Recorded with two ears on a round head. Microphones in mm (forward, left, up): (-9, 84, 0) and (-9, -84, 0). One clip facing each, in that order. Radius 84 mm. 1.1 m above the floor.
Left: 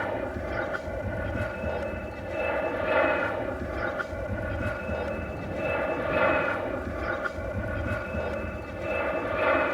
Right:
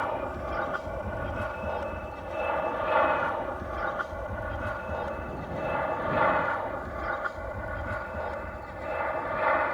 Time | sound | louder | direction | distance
0.0 | an aircraft | left 1 dB | 20° left (ahead or behind) | ?